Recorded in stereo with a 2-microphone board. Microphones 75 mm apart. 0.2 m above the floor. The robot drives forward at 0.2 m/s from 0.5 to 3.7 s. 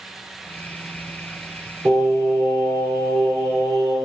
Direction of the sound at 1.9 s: 50° right (ahead or behind).